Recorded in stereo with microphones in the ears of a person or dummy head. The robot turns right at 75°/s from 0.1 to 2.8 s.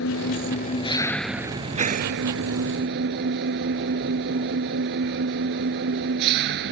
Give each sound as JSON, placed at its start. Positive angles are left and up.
{"t": 0.0, "sound": "an engine running", "azimuth_deg": 95}